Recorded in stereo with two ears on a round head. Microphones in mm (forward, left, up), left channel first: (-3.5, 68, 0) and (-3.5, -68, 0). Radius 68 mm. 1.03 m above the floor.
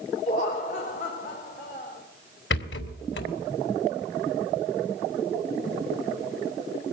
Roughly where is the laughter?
Left.